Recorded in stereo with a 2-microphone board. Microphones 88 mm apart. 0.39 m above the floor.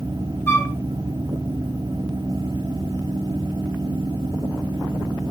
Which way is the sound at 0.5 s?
35° left (ahead or behind).